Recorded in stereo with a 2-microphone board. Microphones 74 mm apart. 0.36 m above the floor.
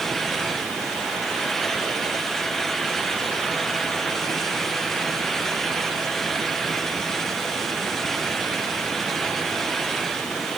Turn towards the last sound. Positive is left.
No sound to turn to.